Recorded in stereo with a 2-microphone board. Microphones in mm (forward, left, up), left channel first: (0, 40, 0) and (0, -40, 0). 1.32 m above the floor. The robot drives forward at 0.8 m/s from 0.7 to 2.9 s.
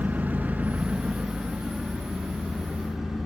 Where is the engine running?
20° right (ahead or behind), 0.7 m; by 3.3 s 5° right (ahead or behind), 2.5 m.